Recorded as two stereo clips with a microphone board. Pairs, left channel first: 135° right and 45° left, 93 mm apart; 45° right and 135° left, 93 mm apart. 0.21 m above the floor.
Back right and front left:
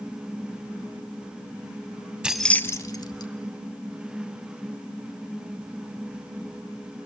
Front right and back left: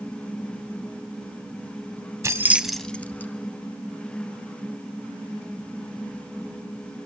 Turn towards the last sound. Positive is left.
turn(degrees=-110)